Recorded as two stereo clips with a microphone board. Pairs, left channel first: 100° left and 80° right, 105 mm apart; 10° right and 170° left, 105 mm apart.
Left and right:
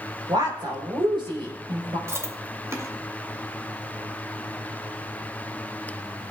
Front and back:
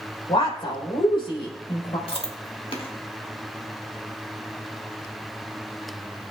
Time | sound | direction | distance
0.3 | a woman speaking | 40° right | 3.5 m
2.1 | chewing | 20° right | 1.8 m